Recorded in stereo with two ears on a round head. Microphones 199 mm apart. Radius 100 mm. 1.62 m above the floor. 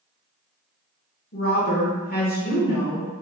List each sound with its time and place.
1.3 s a woman speaking: 45° left (ahead or behind), 1.4 m